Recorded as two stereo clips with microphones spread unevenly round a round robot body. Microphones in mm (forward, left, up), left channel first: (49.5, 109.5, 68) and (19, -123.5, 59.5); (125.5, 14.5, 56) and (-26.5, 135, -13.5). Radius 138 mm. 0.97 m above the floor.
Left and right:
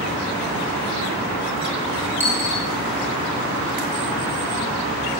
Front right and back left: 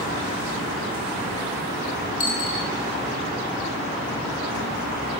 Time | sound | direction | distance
2.2 | a dropped coin | 15° right | 5 m